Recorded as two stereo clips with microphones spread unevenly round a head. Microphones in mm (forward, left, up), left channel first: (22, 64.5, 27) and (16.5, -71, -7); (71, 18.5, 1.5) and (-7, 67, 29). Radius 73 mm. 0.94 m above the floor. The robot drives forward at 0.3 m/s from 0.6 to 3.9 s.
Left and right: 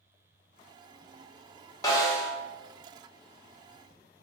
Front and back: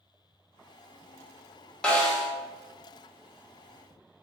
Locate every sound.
1.8 s a snare drum: 65° left, 0.6 m; by 2.3 s 85° left, 0.6 m